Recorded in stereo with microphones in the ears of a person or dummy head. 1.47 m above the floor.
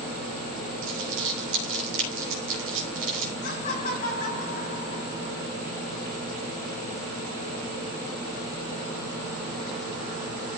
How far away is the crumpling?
About 5 m.